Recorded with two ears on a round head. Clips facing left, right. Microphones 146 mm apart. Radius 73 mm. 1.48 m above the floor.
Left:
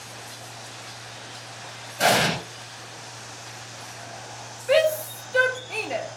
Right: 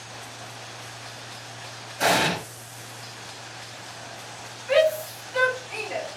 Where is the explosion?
40° left (ahead or behind), 1.3 m.